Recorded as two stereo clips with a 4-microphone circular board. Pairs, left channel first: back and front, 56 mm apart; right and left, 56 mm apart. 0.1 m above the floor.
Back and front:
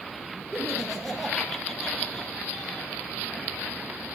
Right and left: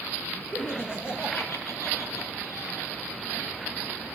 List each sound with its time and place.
0.5 s laughter: 75° right, 1.4 m; by 2.9 s 110° right, 3 m